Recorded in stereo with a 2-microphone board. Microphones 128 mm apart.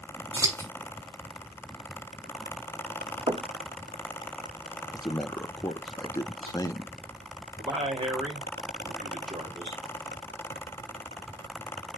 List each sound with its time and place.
0.3 s scissors: 25° right (ahead or behind), 5.5 m
3.3 s knocking: 50° right (ahead or behind), 1.2 m
4.9 s a man speaking: 30° left (ahead or behind), 0.7 m
7.6 s a man speaking: 50° right (ahead or behind), 1.8 m